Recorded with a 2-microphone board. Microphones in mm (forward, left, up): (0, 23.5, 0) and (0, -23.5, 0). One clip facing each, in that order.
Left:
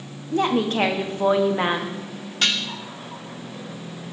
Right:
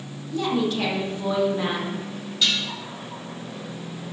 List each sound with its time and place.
0.3 s a woman speaking: 50° left (ahead or behind), 0.7 m
2.4 s dishes clattering: 50° left (ahead or behind), 0.5 m